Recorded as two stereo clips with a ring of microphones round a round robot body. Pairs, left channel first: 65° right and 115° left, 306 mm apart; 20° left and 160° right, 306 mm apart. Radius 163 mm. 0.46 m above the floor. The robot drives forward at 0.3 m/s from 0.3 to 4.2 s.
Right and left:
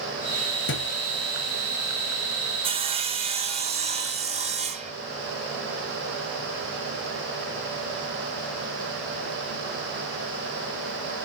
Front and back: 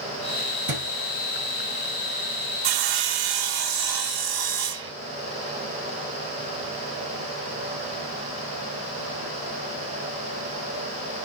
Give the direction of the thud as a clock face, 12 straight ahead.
4 o'clock.